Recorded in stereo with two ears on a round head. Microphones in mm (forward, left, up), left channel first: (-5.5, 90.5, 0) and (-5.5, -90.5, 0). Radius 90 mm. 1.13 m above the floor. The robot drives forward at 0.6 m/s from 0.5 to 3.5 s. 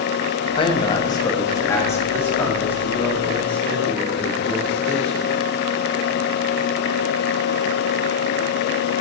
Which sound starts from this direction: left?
A man speaking, at 0.6 s.